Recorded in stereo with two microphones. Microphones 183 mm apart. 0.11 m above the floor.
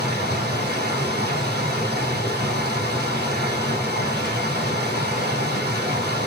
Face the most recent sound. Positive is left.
turn(degrees=-60)  # may be behind; listen again after turning